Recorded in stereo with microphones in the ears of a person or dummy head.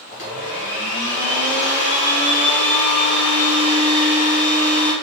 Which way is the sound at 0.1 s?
40° left (ahead or behind).